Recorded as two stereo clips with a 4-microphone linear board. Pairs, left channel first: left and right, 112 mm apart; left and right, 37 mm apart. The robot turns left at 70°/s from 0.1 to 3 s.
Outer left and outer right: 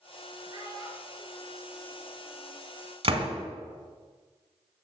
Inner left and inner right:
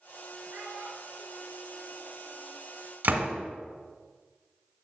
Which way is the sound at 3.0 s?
55° right (ahead or behind).